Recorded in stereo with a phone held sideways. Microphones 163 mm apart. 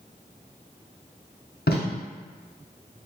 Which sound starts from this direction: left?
Tape being pulled, at 1.7 s.